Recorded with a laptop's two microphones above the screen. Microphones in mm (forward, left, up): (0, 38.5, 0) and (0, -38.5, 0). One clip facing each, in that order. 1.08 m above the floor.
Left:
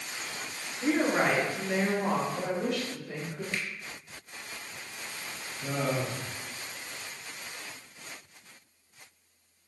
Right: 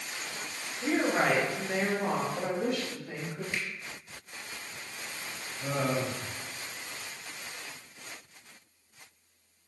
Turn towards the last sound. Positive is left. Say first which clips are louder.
# even
turn(degrees=-65)  # may be behind; listen again after turning